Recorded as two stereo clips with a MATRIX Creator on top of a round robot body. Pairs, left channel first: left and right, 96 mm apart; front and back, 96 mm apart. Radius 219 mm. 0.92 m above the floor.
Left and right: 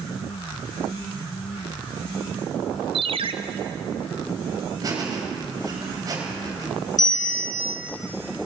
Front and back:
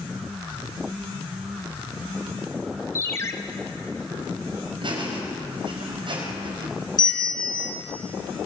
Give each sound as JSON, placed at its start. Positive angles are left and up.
{"t": 3.0, "sound": "a ringtone", "azimuth_deg": -65, "distance_m": 1.1}
{"t": 4.8, "sound": "laughter", "azimuth_deg": -145, "distance_m": 5.0}
{"t": 7.0, "sound": "a bell", "azimuth_deg": 40, "distance_m": 4.0}